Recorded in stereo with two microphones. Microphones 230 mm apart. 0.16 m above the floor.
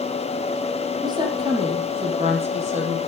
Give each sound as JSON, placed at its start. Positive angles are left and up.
{"t": 1.0, "sound": "a woman speaking", "side_deg": -20, "distance_m": 5.5}